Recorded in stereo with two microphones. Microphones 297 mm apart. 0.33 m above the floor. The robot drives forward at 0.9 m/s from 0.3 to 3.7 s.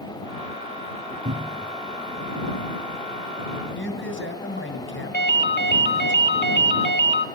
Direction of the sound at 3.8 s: 45° left (ahead or behind).